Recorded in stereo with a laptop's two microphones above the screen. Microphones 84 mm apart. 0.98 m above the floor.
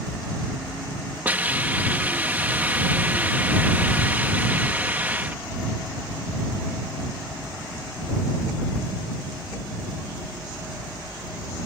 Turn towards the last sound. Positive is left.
turn(degrees=-20)  # may be behind; listen again after turning